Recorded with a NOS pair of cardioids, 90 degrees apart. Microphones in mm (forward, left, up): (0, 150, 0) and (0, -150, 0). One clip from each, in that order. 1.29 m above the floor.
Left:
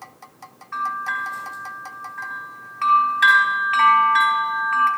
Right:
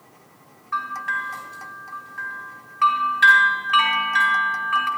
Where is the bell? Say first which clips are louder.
Left 1 dB; 5° left, 3 m.